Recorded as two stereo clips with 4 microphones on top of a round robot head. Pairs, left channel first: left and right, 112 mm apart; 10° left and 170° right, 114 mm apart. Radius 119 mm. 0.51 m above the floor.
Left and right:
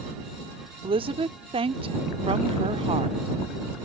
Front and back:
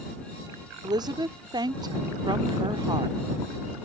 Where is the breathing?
No breathing in this recording.